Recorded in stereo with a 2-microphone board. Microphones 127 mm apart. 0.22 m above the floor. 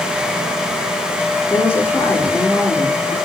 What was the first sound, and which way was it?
A woman speaking, 20° left (ahead or behind).